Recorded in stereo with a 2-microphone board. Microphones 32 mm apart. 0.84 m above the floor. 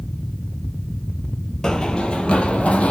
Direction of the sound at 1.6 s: 15° left (ahead or behind).